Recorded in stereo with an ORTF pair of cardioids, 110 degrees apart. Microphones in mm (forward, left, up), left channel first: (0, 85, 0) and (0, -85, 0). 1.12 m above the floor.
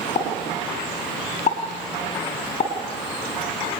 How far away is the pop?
About 4 m.